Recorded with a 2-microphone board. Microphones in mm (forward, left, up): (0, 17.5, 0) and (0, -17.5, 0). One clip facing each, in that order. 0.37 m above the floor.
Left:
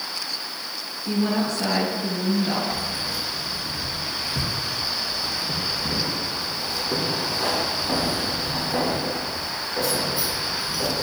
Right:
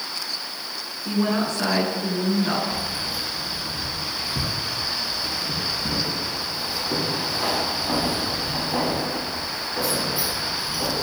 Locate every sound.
1.1 s a woman speaking: 65° right (ahead or behind), 4 m
2.7 s keys jangling: 10° right (ahead or behind), 1.9 m